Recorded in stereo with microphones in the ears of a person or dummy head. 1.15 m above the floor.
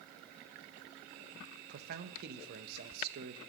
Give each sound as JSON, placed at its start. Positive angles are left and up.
{"t": 1.7, "sound": "a man speaking", "side_deg": -60, "distance_m": 0.9}